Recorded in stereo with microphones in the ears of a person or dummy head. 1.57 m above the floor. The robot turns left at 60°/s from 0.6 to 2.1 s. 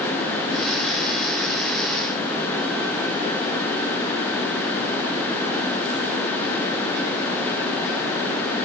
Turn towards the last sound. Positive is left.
No sound to turn to.